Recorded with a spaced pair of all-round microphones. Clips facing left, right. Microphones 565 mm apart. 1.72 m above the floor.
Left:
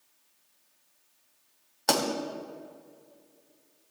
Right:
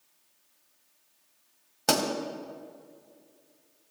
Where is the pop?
55° right (ahead or behind), 2.5 m.